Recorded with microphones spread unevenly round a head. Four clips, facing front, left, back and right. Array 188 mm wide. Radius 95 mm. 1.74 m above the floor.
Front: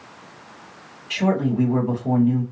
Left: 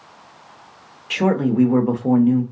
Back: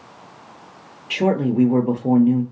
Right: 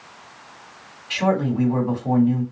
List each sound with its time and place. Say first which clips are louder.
1.1 s a man speaking: left 3 dB, back 2 dB; 145° left, 0.7 m